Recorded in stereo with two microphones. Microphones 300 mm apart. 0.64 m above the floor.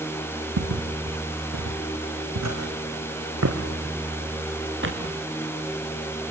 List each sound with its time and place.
0.6 s footsteps: 75° right (ahead or behind), 1.9 m; by 5.1 s 40° right (ahead or behind), 3 m